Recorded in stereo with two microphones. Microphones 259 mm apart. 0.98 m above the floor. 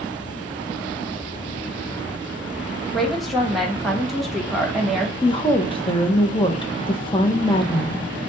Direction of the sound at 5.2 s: 20° left (ahead or behind).